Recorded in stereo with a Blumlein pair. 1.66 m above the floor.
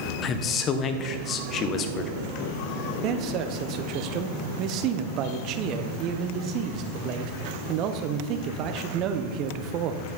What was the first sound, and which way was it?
A man speaking, 30° left.